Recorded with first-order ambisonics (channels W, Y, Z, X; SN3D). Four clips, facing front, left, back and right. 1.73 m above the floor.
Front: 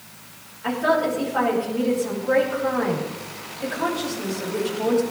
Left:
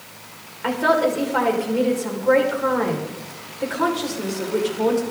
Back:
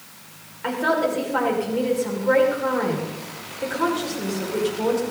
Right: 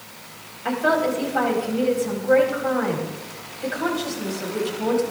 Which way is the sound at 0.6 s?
115° left.